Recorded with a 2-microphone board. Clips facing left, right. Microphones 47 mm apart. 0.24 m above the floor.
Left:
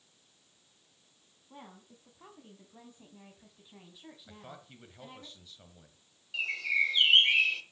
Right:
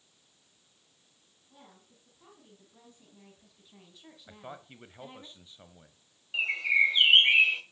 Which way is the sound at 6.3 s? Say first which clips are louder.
Right 4 dB; 20° right (ahead or behind).